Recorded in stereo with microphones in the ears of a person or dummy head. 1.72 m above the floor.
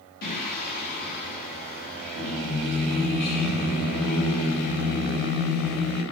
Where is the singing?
50° left (ahead or behind), 3 m.